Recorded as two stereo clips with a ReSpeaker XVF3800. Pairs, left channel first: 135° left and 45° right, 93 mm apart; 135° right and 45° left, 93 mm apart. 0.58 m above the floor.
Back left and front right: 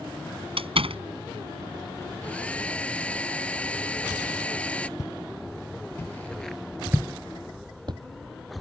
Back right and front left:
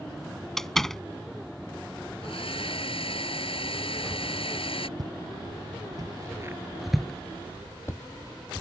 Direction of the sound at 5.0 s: 85° left.